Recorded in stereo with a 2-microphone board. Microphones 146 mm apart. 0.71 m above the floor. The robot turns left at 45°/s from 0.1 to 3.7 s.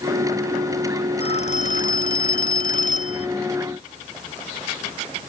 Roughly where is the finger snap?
No finger snap in this recording.